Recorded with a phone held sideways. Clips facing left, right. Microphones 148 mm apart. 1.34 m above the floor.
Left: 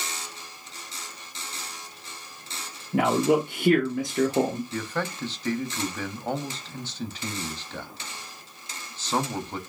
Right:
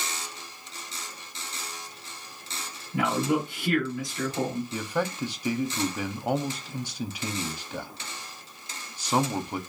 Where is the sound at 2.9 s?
70° left (ahead or behind), 0.9 m.